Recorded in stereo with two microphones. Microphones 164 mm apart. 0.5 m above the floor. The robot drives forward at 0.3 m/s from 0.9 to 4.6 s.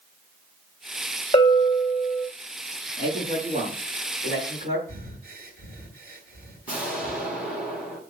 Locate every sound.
1.3 s a bell: 30° left (ahead or behind), 2 m
3.0 s a man speaking: 50° right (ahead or behind), 7 m; by 4.8 s 45° right (ahead or behind), 7.5 m
4.9 s breathing: 65° right (ahead or behind), 8.5 m
6.7 s an explosion: 5° right (ahead or behind), 4 m